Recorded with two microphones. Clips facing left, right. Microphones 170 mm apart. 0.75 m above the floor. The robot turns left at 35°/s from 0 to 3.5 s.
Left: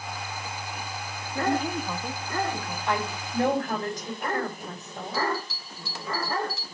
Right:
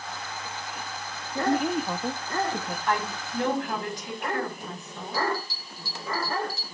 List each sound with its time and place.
1.4 s a woman speaking: 20° right, 0.7 m; by 2.8 s 70° right, 0.7 m
2.9 s a woman speaking: 20° left (ahead or behind), 6 m; by 5.2 s 40° left (ahead or behind), 6 m
5.1 s a bell: 70° left (ahead or behind), 4.5 m